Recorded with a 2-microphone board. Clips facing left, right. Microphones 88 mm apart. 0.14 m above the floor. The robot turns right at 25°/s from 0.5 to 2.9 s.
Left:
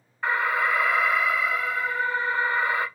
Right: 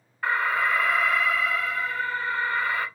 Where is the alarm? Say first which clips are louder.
Even; centre (ahead or behind), 0.8 m; by 2.9 s 20° left (ahead or behind), 0.8 m.